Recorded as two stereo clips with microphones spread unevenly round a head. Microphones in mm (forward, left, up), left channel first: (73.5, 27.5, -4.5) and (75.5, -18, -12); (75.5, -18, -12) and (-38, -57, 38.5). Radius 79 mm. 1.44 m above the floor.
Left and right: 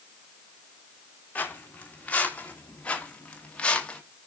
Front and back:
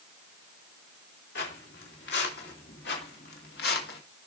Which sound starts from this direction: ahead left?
Footsteps, at 1.4 s.